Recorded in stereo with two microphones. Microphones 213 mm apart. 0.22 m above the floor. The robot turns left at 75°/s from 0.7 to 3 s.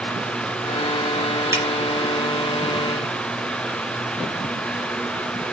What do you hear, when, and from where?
1.5 s a finger snap: 15° right (ahead or behind), 1.6 m; by 1.6 s 5° right (ahead or behind), 1.6 m